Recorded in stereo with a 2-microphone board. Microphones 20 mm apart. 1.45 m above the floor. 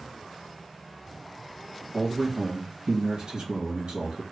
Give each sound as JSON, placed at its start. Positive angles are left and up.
{"t": 1.9, "sound": "a man speaking", "side_deg": -50, "distance_m": 1.4}